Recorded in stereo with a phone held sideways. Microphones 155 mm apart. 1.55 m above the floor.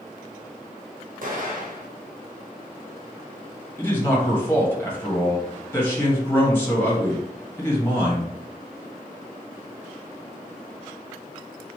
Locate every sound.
1.2 s an explosion: 60° right (ahead or behind), 1.1 m
3.8 s a man speaking: 15° left (ahead or behind), 1.8 m